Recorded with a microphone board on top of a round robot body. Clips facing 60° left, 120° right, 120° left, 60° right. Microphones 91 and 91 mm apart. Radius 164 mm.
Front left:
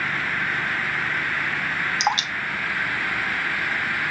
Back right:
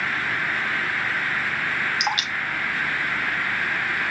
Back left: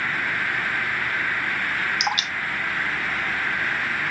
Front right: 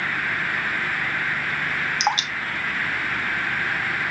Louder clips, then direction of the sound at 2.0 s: Front left 3 dB, front right 3 dB; straight ahead.